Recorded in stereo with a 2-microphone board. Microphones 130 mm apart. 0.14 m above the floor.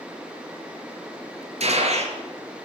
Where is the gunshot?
55° right (ahead or behind), 1.5 m.